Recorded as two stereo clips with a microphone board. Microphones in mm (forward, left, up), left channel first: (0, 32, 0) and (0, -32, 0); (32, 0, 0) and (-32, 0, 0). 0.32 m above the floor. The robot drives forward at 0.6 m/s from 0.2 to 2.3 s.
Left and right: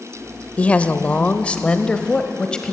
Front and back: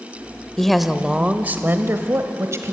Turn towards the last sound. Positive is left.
turn(degrees=160)